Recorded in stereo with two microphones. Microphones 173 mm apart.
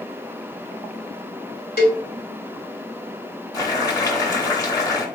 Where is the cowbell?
60° left (ahead or behind), 1.5 m.